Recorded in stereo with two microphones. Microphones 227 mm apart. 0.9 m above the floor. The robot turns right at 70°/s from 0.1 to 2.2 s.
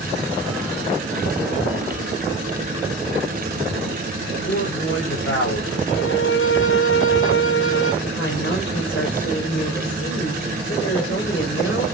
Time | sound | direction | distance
4.3 | a man speaking | 60° left (ahead or behind) | 4.5 m
5.9 | a violin | 65° left (ahead or behind) | 2.5 m
8.0 | a woman speaking | 55° left (ahead or behind) | 4.5 m